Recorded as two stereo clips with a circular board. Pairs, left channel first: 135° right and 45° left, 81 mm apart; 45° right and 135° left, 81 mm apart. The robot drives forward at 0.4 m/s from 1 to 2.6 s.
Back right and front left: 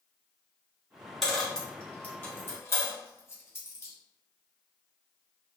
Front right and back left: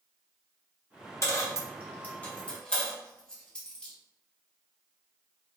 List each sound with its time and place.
1.2 s a dropped coin: 50° right, 0.9 m; by 3.9 s 115° right, 0.8 m